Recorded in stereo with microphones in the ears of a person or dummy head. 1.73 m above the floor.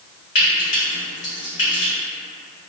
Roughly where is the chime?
I don't hear a chime.